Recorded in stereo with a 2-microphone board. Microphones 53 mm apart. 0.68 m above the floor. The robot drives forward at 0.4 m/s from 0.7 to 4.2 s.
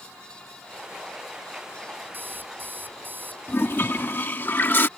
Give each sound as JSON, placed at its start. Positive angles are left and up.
{"t": 2.1, "sound": "an alarm clock", "side_deg": -40}
{"t": 3.5, "sound": "a toilet flushing", "side_deg": 50}